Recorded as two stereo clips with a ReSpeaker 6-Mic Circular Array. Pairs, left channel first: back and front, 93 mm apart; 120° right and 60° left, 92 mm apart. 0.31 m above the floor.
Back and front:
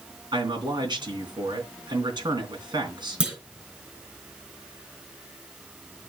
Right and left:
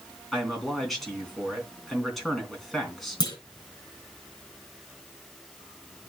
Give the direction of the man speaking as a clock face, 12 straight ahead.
1 o'clock.